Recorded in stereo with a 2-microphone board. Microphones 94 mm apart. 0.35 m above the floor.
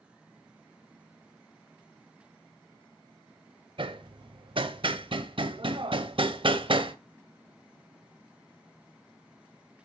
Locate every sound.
3.8 s hammering: 60° right (ahead or behind), 0.6 m